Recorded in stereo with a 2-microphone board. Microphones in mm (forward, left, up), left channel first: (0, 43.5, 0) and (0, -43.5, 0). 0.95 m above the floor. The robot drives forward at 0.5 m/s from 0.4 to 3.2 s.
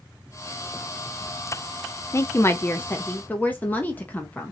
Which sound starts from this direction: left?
A woman speaking, at 2.1 s.